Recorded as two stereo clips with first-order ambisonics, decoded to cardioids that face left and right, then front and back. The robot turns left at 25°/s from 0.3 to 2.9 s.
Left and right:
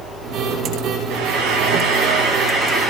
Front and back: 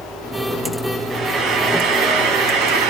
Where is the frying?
115° right, 2.0 m; by 2.9 s 160° right, 2.0 m.